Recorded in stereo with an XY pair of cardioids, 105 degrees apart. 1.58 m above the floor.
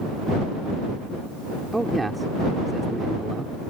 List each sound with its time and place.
1.7 s a man speaking: 15° right